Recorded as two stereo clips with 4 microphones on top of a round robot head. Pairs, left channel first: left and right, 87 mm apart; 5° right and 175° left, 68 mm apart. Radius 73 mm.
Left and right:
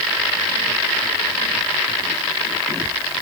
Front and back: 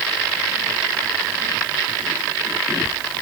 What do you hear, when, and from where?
Only background noise.